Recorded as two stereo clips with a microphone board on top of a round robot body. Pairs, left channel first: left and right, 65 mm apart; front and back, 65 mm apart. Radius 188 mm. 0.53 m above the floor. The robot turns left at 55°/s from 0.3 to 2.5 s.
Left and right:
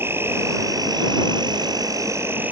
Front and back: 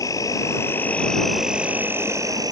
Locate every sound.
0.0 s an insect: 35° right; by 2.5 s 155° right